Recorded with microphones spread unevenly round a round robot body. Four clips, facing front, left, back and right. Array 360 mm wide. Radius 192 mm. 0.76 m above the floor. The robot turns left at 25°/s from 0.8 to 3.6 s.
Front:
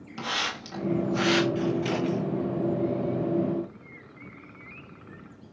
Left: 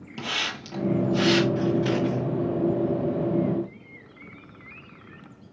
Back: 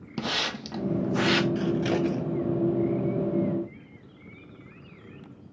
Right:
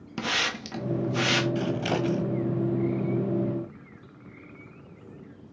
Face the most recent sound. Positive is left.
turn(degrees=170)